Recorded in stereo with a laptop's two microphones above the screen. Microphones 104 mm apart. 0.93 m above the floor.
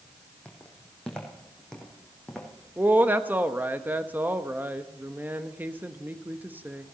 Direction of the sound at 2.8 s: 15° right (ahead or behind).